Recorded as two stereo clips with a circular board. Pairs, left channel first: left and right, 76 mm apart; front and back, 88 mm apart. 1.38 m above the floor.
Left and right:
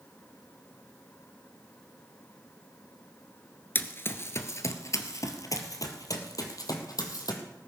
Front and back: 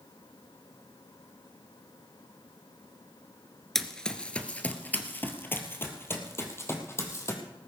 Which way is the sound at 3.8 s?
80° left.